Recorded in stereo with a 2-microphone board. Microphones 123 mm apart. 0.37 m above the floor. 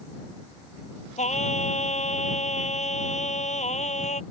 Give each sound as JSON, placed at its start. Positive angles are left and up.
{"t": 1.2, "sound": "singing", "side_deg": 70}